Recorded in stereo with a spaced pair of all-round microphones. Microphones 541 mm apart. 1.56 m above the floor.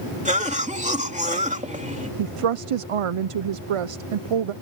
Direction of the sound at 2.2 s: 70° right (ahead or behind).